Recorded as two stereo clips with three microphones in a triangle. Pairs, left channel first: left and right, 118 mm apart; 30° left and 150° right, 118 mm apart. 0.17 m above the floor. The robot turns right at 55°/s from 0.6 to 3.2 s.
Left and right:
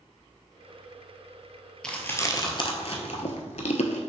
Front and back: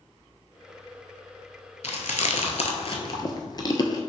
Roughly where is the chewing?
Ahead.